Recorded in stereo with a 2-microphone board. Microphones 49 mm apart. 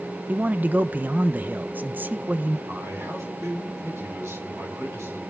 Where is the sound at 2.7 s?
85° right, 6 m.